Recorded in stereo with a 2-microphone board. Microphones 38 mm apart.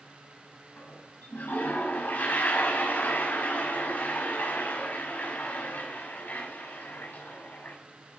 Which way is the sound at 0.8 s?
55° left (ahead or behind).